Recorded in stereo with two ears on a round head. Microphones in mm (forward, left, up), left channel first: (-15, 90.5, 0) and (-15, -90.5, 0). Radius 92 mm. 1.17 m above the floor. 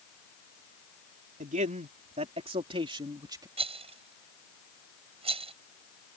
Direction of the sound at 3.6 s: 30° right (ahead or behind).